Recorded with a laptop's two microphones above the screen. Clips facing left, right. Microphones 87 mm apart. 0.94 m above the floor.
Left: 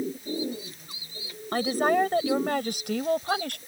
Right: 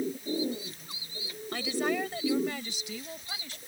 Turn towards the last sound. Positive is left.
turn(degrees=60)  # may be behind; listen again after turning